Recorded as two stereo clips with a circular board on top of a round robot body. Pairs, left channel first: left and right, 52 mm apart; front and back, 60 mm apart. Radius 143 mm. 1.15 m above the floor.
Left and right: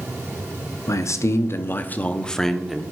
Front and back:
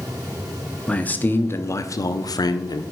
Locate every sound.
0.9 s a man speaking: 70° left, 1.0 m; by 2.8 s 5° right, 0.8 m